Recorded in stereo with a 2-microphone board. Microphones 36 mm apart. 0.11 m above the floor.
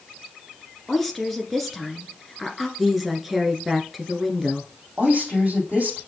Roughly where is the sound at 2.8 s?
Centre.